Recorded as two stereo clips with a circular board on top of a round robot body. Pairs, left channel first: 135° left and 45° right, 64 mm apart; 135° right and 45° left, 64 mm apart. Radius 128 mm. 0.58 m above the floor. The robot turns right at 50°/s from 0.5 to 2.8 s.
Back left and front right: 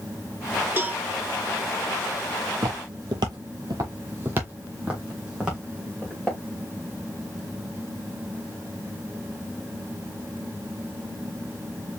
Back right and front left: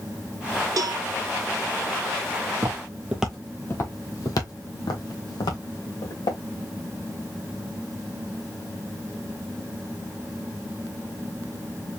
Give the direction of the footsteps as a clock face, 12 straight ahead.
12 o'clock.